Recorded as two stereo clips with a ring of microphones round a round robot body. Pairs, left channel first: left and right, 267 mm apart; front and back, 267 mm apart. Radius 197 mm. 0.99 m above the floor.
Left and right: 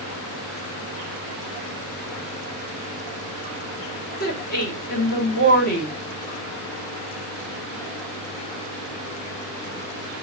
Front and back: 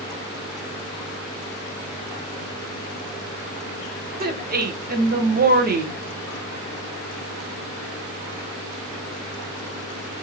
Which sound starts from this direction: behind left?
A woman speaking, at 4.2 s.